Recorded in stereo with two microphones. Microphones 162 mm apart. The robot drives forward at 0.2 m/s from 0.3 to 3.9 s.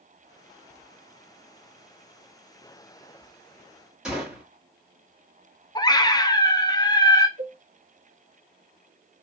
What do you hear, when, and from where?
4.0 s a gunshot: 5° right (ahead or behind), 1.3 m
5.8 s a scream: 25° left (ahead or behind), 0.6 m
7.4 s a cowbell: 20° left (ahead or behind), 2.0 m